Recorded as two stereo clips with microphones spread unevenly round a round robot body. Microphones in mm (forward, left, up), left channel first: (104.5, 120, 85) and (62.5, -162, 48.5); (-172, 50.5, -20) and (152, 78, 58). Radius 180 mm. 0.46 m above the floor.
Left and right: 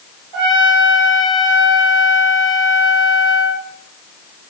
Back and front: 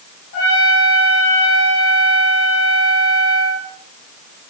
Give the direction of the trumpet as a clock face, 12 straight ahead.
4 o'clock.